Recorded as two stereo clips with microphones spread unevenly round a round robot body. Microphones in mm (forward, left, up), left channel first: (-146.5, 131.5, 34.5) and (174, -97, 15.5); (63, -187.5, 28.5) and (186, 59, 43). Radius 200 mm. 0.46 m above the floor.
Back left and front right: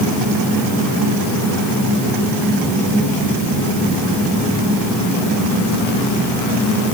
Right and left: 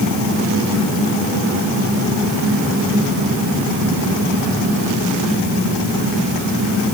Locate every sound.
Only background noise.